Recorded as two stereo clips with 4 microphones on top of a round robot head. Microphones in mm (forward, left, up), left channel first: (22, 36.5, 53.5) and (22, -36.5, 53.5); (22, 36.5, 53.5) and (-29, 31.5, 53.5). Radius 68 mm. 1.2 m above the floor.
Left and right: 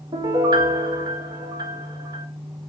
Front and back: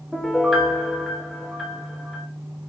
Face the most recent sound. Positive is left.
turn(degrees=-80)